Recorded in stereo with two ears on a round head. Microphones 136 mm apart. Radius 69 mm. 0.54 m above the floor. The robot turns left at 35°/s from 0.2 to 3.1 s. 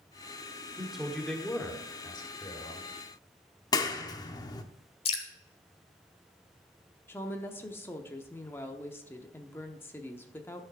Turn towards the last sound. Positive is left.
turn(degrees=15)  # may be behind; listen again after turning